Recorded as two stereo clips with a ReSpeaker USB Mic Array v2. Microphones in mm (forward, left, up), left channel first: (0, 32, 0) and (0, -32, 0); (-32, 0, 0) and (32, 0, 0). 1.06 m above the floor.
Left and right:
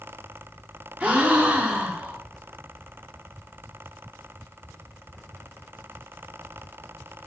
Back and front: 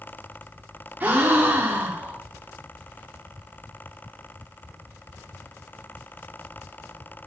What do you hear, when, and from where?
1.0 s a gasp: 35° right, 0.7 m